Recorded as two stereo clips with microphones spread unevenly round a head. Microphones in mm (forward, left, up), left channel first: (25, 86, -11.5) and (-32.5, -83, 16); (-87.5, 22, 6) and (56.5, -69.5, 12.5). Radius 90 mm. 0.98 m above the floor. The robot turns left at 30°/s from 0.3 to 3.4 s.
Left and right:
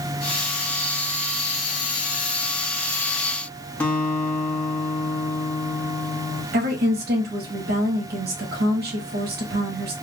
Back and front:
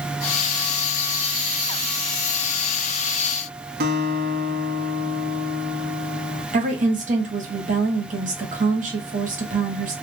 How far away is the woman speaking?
About 1.6 m.